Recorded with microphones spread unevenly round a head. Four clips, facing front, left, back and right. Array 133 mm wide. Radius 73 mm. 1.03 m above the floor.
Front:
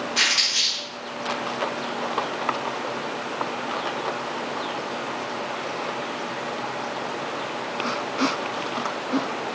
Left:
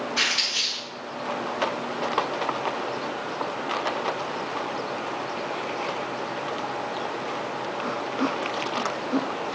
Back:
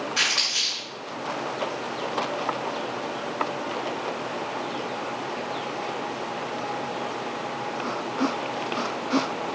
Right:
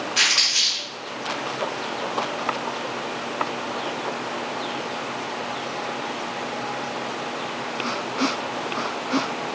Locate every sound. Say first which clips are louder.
0.2 s crumpling: right 2 dB, front 2 dB; 130° right, 1.8 m